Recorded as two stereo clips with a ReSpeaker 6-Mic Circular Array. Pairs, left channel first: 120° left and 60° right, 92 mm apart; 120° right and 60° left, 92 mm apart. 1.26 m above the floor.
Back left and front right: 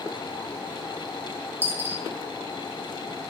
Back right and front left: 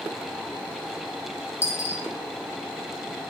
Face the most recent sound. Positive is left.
turn(degrees=-95)